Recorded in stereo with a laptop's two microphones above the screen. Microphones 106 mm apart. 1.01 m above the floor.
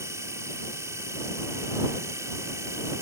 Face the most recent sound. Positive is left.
turn(degrees=-25)  # may be behind; listen again after turning